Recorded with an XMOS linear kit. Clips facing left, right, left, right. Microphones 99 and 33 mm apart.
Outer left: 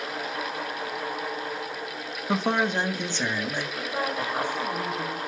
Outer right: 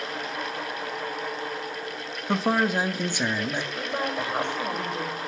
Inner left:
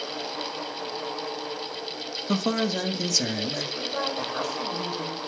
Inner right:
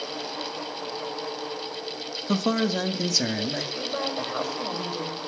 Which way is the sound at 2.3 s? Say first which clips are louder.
Outer right 1 dB, inner right 1 dB; centre (ahead or behind).